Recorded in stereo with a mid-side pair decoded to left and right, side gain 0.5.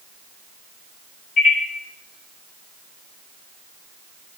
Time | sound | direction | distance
1.4 | a microwave | 55° left | 0.8 m